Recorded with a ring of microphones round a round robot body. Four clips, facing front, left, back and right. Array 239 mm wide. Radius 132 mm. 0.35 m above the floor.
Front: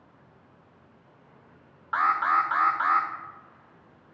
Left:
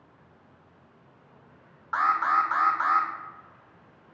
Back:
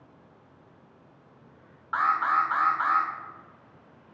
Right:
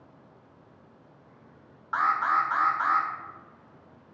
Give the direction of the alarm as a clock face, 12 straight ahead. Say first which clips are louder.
Left 1 dB, front 1 dB; 11 o'clock.